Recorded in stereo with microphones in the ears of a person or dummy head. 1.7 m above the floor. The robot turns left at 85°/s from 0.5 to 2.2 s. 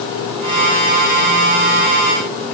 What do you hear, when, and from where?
Only background noise.